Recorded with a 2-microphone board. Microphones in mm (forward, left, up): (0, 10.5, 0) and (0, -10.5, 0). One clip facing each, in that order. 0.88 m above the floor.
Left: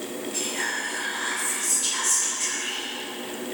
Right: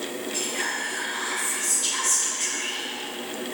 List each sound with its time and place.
0.3 s whispering: 5° right (ahead or behind), 0.6 m